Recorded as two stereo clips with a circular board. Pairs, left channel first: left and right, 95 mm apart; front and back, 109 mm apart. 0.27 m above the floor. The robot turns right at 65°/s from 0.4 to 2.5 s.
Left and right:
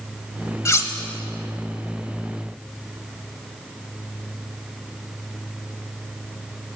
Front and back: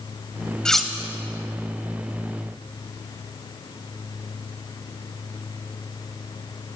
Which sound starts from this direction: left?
Cutlery clinking, at 0.7 s.